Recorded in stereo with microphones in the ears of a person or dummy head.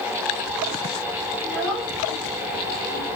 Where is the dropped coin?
No dropped coin in this recording.